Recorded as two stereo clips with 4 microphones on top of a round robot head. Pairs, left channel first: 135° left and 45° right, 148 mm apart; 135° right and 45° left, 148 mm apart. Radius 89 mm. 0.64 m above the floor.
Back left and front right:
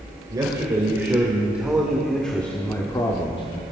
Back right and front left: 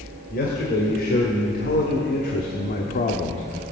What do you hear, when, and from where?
0.3 s a man speaking: 110° right, 2 m; by 3.6 s straight behind, 1.3 m